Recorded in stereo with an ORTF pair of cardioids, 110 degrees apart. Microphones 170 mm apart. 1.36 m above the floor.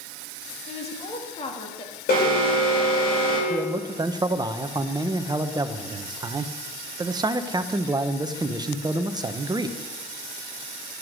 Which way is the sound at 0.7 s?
40° left.